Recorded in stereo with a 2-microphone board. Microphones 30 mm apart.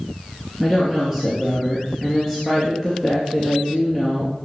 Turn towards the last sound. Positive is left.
turn(degrees=-15)  # may be behind; listen again after turning